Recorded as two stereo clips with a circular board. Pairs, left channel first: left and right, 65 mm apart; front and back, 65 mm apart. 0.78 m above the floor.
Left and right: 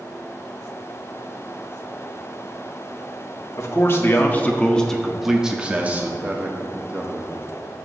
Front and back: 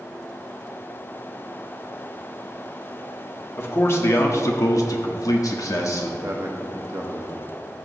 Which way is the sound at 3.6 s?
50° left.